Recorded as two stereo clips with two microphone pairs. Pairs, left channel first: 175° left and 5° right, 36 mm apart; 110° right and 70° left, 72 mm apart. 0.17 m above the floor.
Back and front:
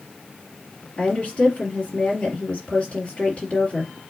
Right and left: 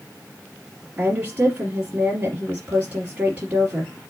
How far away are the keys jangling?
No keys jangling in this recording.